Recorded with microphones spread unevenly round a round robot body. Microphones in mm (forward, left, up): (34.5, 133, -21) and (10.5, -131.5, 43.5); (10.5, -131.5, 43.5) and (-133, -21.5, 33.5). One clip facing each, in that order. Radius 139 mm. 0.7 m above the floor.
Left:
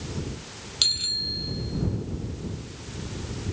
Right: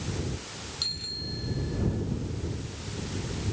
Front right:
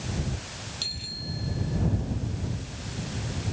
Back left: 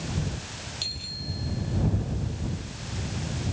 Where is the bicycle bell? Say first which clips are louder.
Even, even; 50° left.